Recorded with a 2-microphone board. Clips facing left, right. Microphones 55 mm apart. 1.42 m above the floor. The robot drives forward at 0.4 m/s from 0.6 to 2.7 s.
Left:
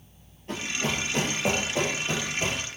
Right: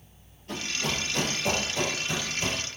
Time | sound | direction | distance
0.5 | running footsteps | 30° left (ahead or behind) | 1.8 m